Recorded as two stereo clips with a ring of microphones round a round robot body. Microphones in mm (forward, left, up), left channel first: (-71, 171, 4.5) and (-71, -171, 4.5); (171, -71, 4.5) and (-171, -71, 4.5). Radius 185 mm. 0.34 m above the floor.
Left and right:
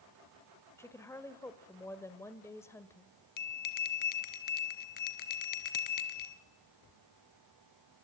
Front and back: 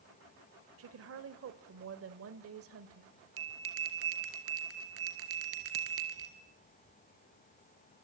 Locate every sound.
0.8 s a woman speaking: 170° left, 1.4 m
3.4 s a bell: 120° left, 2 m